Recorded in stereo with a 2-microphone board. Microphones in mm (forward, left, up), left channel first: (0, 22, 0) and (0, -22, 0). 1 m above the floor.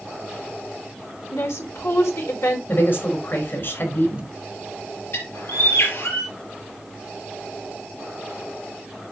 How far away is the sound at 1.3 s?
About 3 m.